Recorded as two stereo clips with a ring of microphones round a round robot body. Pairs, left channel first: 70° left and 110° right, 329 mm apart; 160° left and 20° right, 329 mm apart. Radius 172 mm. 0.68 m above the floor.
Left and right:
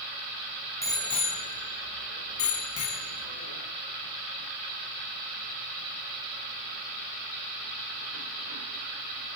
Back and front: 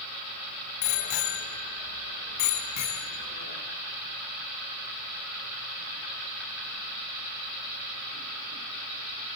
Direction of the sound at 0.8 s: 150° left.